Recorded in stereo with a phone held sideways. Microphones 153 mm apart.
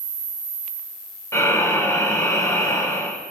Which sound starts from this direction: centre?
Breathing, at 1.3 s.